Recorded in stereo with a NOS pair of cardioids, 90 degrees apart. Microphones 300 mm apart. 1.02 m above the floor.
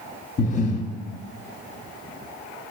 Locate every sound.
0.4 s breathing: 25° left, 0.8 m